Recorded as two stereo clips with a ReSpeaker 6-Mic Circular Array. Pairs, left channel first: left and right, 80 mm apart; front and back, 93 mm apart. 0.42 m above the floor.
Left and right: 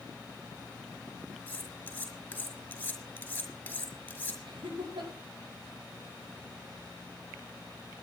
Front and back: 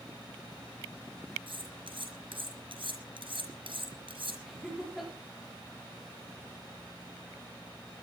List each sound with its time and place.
1.5 s cutlery clinking: 160° left, 4.5 m
4.5 s laughter: 90° right, 7 m